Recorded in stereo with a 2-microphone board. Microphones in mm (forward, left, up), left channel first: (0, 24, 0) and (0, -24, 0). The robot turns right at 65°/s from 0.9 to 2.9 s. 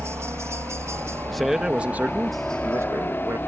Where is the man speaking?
170° left; by 3.4 s 85° right.